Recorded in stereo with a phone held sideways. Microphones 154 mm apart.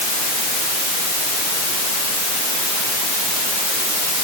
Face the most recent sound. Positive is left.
No sound to turn to.